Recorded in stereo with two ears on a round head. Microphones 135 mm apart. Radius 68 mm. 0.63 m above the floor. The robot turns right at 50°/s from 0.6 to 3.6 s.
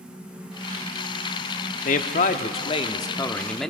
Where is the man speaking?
90° left, 1.1 m; by 3.7 s 175° left, 1.1 m.